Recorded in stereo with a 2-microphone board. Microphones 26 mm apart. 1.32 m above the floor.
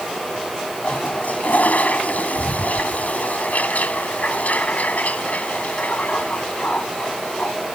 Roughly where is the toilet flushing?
Left.